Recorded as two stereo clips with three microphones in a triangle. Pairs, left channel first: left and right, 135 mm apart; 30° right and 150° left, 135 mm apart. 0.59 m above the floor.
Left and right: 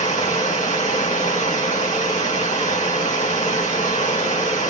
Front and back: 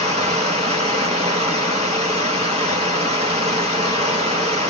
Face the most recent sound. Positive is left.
turn(degrees=110)